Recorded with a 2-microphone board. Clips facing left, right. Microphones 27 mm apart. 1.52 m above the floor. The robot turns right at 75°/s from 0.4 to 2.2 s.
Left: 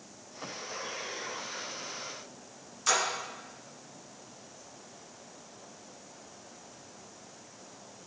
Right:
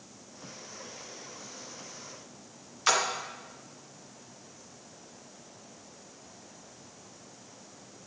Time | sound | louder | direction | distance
2.9 | a splash | right 2 dB | 35° right (ahead or behind) | 1.1 m